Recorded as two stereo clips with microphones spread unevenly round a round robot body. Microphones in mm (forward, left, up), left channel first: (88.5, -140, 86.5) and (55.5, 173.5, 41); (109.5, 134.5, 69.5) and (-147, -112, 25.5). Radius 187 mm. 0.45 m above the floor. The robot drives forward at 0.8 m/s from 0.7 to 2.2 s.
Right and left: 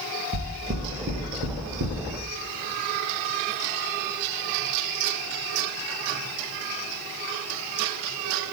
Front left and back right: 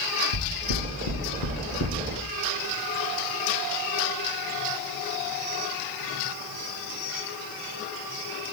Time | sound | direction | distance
0.3 | knocking | 45° left | 1.2 m